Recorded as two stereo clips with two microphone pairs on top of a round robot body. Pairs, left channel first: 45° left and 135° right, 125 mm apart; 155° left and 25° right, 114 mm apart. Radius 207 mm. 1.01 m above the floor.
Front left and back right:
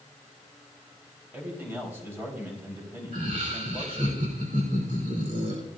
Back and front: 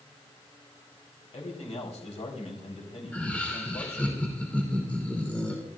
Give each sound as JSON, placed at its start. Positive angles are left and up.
{"t": 1.3, "sound": "a man speaking", "azimuth_deg": 155, "distance_m": 4.0}
{"t": 3.1, "sound": "laughter", "azimuth_deg": -130, "distance_m": 3.0}